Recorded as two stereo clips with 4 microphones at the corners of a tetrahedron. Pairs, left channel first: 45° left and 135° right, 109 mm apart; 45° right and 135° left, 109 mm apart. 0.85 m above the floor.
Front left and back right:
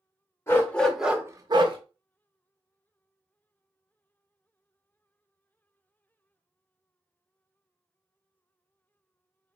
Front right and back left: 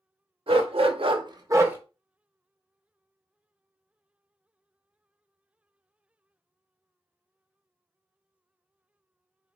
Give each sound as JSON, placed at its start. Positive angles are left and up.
{"t": 0.5, "sound": "a dog barking", "azimuth_deg": 110, "distance_m": 0.8}